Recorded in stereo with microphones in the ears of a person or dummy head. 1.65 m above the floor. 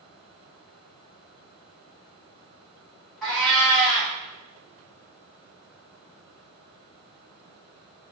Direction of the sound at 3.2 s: 5° right (ahead or behind).